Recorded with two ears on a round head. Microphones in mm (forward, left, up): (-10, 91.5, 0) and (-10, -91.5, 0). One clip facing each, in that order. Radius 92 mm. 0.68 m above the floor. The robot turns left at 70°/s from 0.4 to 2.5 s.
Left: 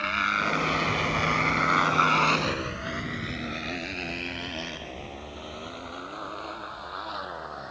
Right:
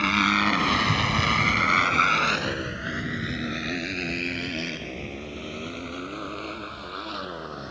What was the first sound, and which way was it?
A motorcycle, 75° right (ahead or behind).